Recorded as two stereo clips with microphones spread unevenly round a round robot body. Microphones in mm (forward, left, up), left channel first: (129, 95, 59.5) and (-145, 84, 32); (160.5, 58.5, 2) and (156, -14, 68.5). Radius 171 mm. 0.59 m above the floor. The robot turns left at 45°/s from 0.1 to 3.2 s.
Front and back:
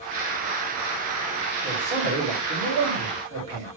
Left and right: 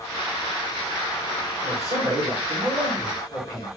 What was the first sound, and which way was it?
A man speaking, 100° right.